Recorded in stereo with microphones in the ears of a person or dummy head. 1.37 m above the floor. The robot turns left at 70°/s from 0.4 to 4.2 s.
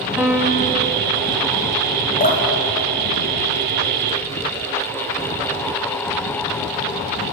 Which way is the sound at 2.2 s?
35° left (ahead or behind).